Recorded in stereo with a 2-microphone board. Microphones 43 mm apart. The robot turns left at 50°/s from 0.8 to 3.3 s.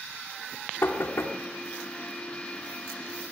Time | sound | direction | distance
0.8 | knocking | 55° left (ahead or behind) | 2.5 m